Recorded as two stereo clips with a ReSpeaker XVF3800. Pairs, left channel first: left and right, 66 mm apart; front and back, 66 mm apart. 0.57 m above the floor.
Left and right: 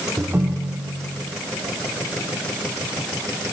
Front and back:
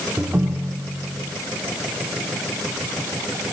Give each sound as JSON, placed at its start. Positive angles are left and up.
{"t": 0.2, "sound": "a ringtone", "azimuth_deg": -130, "distance_m": 0.9}